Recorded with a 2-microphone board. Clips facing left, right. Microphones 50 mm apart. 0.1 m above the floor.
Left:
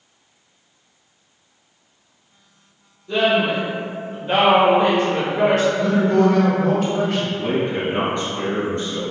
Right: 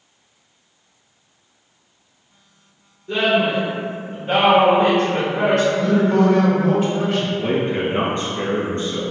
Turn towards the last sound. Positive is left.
turn(degrees=-35)  # may be behind; listen again after turning